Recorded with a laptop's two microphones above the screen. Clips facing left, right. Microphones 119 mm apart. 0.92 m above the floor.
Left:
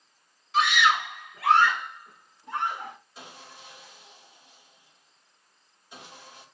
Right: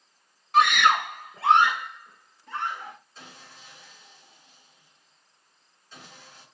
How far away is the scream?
About 1.5 m.